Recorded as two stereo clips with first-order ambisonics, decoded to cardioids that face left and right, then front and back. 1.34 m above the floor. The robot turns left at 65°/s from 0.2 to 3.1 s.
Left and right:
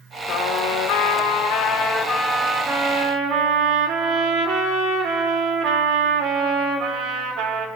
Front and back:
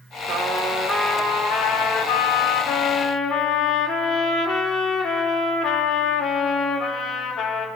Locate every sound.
0.3 s a trumpet: 120° left, 3.5 m; by 7.7 s 65° right, 3.5 m